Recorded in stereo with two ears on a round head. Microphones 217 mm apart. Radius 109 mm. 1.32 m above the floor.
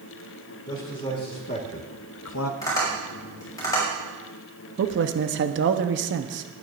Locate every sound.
0.7 s a man speaking: 20° left (ahead or behind), 3 m; by 2.5 s 60° left (ahead or behind), 0.7 m
2.6 s tapping: 15° left (ahead or behind), 6 m
4.8 s a man speaking: 50° right (ahead or behind), 0.9 m